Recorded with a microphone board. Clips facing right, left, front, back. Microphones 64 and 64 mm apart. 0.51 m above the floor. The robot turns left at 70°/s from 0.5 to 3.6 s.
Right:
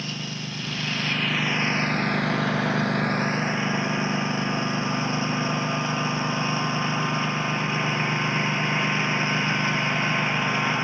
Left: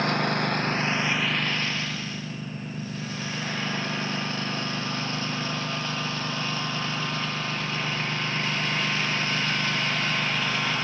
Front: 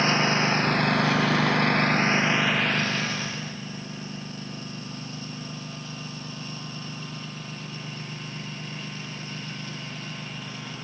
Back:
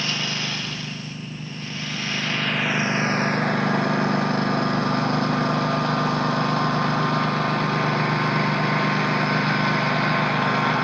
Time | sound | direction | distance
0.0 | a lawn mower | 55° left | ?